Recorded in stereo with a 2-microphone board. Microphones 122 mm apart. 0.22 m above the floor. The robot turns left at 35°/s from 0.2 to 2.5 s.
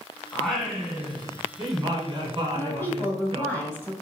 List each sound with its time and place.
0.3 s singing: 15° left, 1.4 m; by 3.5 s 60° right, 1.4 m
2.5 s a woman speaking: 20° left (ahead or behind), 1.2 m